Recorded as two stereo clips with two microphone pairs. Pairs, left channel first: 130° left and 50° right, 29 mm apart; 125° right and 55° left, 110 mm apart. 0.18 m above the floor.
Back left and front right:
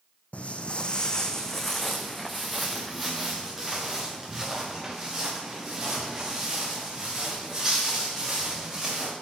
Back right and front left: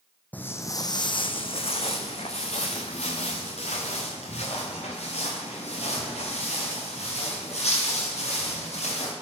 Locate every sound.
0.3 s footsteps: 160° left, 0.6 m; by 9.1 s 115° right, 4.5 m